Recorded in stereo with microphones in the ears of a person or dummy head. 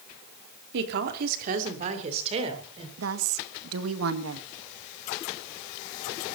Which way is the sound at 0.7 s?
65° right (ahead or behind).